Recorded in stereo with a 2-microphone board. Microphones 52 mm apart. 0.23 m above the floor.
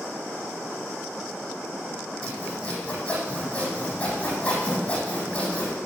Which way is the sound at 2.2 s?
25° left (ahead or behind).